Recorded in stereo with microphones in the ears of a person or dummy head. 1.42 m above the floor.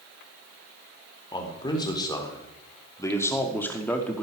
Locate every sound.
1.3 s a man speaking: 25° left (ahead or behind), 3.5 m; by 4.2 s 5° left (ahead or behind), 2.5 m